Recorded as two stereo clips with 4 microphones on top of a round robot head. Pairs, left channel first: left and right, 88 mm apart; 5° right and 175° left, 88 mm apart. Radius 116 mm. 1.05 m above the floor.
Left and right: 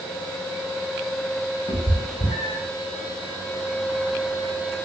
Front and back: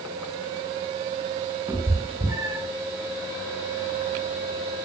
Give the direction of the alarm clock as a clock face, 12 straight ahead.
I don't hear an alarm clock.